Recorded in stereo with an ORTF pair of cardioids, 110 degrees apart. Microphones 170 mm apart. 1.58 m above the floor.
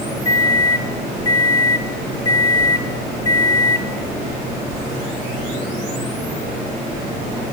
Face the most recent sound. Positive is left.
turn(degrees=20)